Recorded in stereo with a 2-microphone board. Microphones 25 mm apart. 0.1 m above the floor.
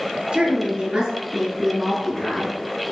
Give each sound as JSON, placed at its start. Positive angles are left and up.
{"t": 0.3, "sound": "a woman speaking", "side_deg": -45, "distance_m": 2.0}